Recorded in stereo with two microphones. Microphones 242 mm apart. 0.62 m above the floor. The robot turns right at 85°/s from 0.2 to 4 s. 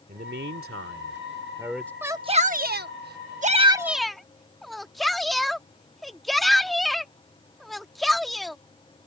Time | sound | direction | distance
0.1 | a man speaking | 135° right | ?
2.0 | a shout | 5° right (ahead or behind) | ?